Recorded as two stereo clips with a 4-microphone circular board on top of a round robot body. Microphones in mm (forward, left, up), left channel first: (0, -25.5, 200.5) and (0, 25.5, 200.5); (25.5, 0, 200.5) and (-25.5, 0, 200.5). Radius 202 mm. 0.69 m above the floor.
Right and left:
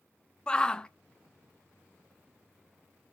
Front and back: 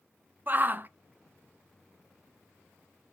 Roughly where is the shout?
Behind right.